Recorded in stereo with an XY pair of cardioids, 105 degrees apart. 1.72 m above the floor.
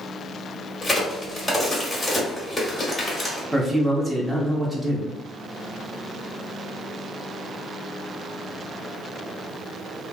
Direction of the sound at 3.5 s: 15° right.